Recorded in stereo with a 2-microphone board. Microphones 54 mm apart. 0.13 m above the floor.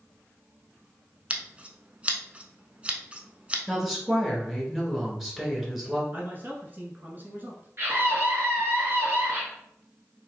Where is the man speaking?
35° right (ahead or behind), 1.3 m.